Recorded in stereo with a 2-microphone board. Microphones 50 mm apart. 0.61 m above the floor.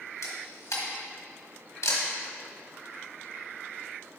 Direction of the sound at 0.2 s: 90° left.